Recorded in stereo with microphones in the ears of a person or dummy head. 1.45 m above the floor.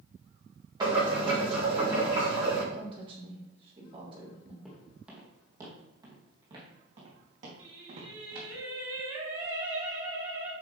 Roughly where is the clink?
I don't hear a clink.